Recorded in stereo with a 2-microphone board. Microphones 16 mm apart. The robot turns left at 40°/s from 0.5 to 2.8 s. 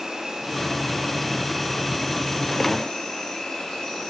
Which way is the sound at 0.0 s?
135° right.